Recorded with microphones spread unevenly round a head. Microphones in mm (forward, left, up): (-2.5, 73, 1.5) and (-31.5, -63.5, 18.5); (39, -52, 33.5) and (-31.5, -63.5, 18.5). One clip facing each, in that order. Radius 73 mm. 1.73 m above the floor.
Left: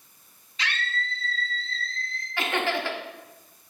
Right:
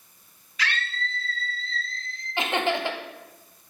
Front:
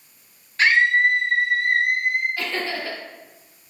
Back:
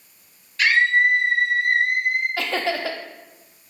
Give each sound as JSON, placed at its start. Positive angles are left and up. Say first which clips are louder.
{"t": 0.6, "sound": "a scream", "louder": "right 1 dB, front 1 dB", "azimuth_deg": 15, "distance_m": 0.6}
{"t": 2.4, "sound": "laughter", "louder": "right 2 dB, back 3 dB", "azimuth_deg": -170, "distance_m": 0.8}